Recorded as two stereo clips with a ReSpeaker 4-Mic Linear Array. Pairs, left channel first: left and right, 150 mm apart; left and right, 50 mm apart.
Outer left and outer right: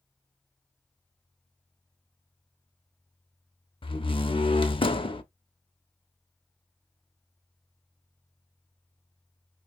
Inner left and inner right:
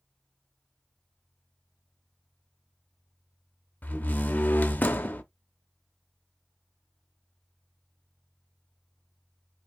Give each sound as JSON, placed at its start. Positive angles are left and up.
{"t": 3.8, "sound": "a door slam", "side_deg": 35, "distance_m": 0.6}